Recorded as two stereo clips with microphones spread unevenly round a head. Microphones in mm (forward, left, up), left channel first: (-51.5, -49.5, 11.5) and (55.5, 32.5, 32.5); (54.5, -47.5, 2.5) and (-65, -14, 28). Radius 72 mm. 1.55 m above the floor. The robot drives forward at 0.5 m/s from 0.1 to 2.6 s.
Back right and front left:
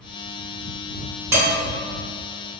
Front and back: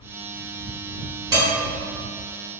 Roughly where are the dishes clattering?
Left.